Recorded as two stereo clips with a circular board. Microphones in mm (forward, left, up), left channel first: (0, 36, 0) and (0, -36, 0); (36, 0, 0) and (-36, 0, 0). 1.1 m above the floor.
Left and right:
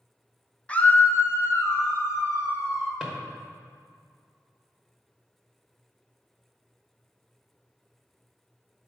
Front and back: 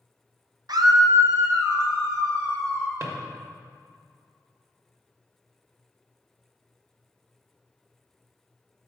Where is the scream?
160° left, 0.7 m; by 2.9 s 130° left, 2 m.